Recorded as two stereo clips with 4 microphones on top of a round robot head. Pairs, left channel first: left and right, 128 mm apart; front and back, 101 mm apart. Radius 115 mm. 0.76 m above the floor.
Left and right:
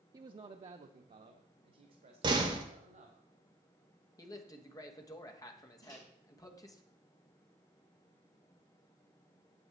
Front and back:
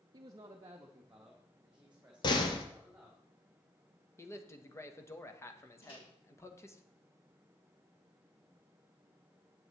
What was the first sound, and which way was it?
A man speaking, 145° right.